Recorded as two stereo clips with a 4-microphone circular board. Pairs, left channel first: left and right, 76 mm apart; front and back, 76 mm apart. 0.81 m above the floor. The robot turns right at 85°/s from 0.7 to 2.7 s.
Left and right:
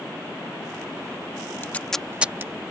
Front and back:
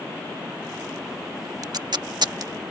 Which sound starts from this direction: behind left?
Tape being pulled, at 1.6 s.